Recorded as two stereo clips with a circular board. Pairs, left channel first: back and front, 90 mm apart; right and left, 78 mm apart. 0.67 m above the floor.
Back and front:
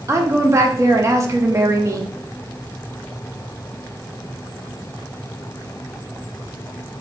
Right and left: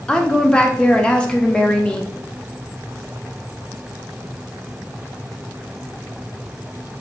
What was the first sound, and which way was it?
A woman speaking, 20° right.